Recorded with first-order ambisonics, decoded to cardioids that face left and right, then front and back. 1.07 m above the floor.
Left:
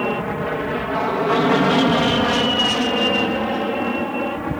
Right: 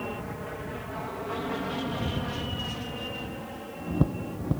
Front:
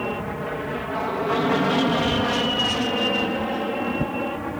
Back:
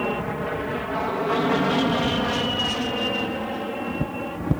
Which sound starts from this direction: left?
An aircraft, at 0.0 s.